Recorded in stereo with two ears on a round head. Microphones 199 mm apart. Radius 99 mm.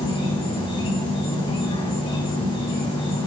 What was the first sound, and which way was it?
An insect, 25° left (ahead or behind).